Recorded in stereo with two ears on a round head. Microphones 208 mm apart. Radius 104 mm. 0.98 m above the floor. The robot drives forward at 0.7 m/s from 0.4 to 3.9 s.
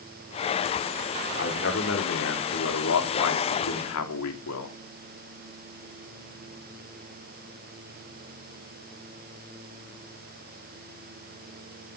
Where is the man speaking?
50° left (ahead or behind), 3.5 m; by 4.8 s 70° left (ahead or behind), 3 m.